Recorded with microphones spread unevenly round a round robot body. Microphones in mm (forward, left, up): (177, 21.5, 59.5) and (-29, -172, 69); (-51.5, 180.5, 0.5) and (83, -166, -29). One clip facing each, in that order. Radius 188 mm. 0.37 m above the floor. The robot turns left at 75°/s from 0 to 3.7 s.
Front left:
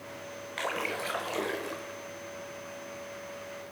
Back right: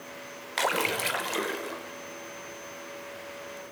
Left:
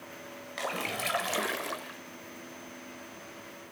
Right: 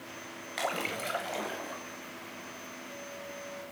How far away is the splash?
About 1.1 m.